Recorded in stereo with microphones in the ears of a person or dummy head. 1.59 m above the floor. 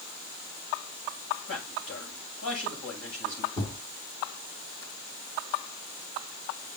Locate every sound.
1.5 s a man speaking: 85° left, 8 m
3.6 s a thud: 20° left (ahead or behind), 3 m